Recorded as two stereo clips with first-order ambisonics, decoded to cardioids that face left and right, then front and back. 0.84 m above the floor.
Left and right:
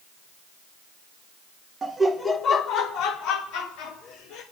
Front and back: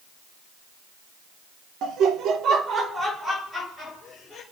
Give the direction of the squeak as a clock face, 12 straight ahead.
I don't hear a squeak.